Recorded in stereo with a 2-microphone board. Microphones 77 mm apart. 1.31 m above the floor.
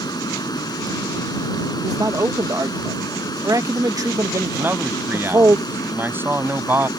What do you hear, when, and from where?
0.0 s running water: 65° left (ahead or behind)
1.8 s a man speaking: 55° right (ahead or behind)
4.6 s a man speaking: 30° right (ahead or behind)